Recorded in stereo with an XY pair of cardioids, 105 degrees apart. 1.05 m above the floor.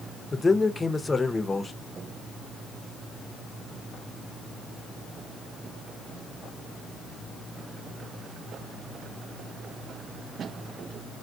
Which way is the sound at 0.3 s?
20° left.